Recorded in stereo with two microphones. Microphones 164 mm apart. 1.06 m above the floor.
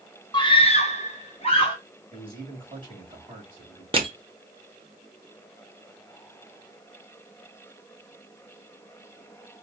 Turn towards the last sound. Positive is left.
turn(degrees=-35)  # may be behind; listen again after turning